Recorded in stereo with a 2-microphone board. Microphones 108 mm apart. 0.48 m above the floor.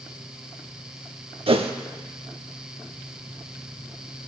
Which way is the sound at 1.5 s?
60° right (ahead or behind).